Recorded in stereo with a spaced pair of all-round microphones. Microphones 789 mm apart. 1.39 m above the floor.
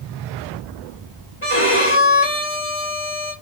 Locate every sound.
1.4 s a violin: 15° left (ahead or behind), 1.5 m